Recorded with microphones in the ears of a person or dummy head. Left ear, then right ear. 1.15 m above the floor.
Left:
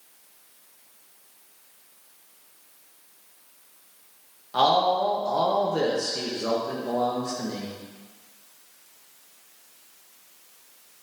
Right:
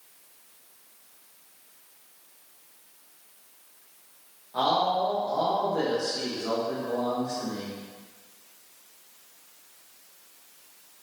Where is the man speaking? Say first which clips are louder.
Left 4 dB; 60° left (ahead or behind), 0.6 m.